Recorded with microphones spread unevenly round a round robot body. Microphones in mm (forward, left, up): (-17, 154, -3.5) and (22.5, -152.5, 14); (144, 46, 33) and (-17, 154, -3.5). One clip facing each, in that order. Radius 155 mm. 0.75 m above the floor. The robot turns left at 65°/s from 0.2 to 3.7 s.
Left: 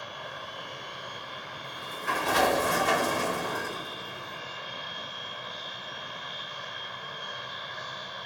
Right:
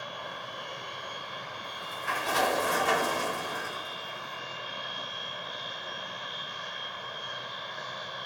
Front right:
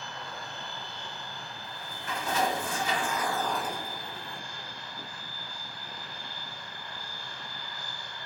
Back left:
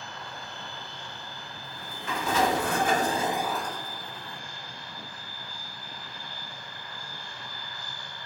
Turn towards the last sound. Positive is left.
turn(degrees=45)